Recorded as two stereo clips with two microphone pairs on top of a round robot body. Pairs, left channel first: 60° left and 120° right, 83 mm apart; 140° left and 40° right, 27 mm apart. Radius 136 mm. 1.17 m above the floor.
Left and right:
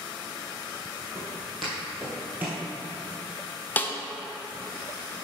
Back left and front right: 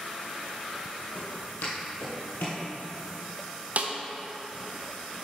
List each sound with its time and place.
1.1 s footsteps: 145° left, 2.5 m; by 2.6 s 170° left, 1.5 m
3.8 s a snare drum: 10° right, 0.6 m